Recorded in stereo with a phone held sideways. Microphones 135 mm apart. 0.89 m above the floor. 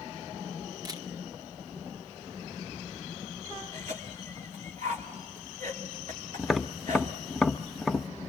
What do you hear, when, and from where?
0.8 s a camera shutter: 30° right (ahead or behind), 1.0 m
3.7 s a cough: 70° right (ahead or behind), 2.5 m
6.4 s tapping: centre (ahead or behind), 0.6 m